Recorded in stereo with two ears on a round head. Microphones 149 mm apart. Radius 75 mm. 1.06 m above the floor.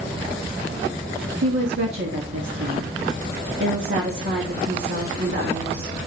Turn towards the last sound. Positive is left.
turn(degrees=-75)  # may be behind; listen again after turning